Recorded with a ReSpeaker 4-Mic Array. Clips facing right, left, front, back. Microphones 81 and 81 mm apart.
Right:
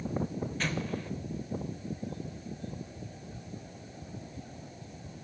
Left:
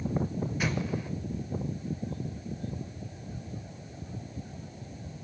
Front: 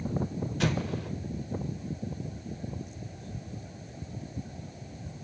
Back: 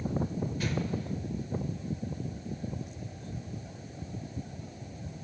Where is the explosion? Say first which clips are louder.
Left 3 dB, front 6 dB; 10° left, 0.6 m.